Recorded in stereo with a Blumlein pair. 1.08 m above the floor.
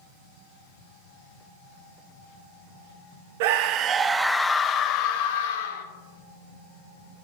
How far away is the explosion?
No explosion in this recording.